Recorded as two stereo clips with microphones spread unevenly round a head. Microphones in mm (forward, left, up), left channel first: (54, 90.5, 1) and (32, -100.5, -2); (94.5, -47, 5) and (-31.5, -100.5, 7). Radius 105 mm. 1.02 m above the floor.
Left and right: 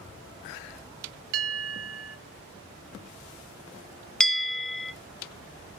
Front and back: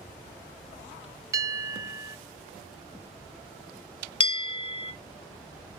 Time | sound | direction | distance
1.3 | a bell | 90° right | 1.2 m
4.2 | a bell | straight ahead | 1.0 m